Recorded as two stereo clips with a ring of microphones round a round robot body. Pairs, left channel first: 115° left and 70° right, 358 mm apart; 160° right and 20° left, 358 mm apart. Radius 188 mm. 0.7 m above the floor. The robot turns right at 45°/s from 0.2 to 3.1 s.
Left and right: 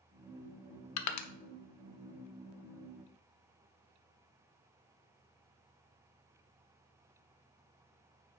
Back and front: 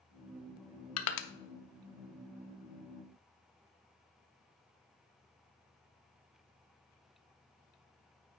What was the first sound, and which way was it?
Crushing, 155° left.